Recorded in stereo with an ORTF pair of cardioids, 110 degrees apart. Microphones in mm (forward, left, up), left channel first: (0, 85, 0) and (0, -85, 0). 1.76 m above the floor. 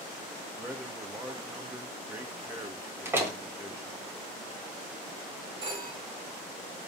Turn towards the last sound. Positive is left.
turn(degrees=-25)